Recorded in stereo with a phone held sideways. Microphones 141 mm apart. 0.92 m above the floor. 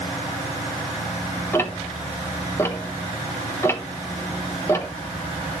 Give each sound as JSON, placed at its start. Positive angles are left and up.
{"t": 1.5, "sound": "ticking", "side_deg": 20, "distance_m": 0.9}